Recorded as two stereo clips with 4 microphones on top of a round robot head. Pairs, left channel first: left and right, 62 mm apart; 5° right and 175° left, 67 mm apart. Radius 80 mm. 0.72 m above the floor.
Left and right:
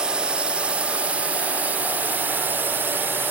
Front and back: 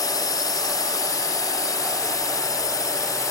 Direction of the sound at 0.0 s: 15° right.